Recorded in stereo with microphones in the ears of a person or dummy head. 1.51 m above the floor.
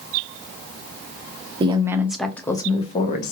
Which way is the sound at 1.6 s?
30° right (ahead or behind).